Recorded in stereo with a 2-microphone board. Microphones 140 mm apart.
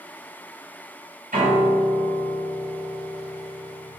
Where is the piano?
80° right, 6.5 m.